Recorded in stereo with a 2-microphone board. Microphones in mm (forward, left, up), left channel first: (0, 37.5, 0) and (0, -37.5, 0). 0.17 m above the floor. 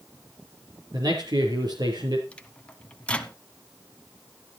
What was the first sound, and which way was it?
A man speaking, 60° right (ahead or behind).